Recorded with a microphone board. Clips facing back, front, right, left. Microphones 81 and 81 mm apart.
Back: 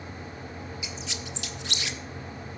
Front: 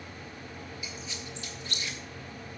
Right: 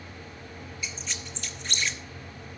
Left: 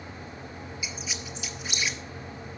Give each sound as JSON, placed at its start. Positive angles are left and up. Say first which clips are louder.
{"t": 0.8, "sound": "a squeak", "louder": "back 3 dB, even", "azimuth_deg": 175, "distance_m": 0.7}